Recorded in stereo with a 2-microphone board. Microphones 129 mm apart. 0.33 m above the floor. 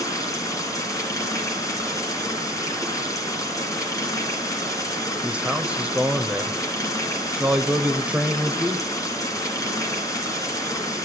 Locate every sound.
0.0 s running water: 25° left (ahead or behind), 3 m
5.2 s a man speaking: 10° right (ahead or behind), 0.9 m